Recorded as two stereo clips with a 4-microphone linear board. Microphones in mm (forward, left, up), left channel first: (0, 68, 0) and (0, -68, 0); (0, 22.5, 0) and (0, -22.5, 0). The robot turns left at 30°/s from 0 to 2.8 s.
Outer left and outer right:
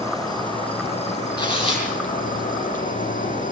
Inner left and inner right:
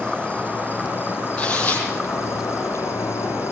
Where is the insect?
160° left, 4.5 m; by 3.5 s 75° left, 4.5 m.